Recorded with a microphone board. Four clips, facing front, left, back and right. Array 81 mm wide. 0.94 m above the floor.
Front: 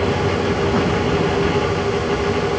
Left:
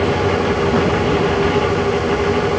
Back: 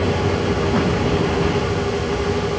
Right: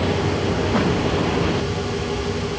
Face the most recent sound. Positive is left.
No sound to turn to.